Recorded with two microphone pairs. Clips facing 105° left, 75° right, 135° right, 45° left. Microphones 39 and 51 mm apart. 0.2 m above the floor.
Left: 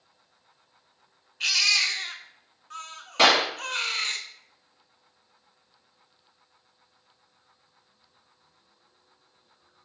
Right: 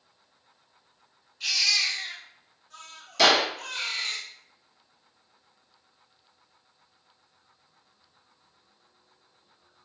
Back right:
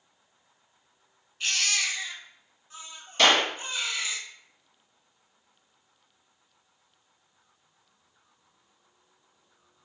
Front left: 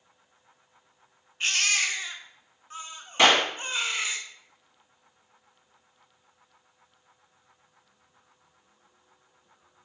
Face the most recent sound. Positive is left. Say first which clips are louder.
# left 1 dB, front left 1 dB
turn(degrees=100)